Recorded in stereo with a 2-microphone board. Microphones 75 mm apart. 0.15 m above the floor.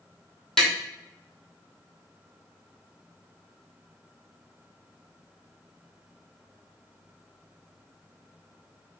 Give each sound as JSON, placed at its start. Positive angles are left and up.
{"t": 0.6, "sound": "tapping", "side_deg": 5, "distance_m": 1.1}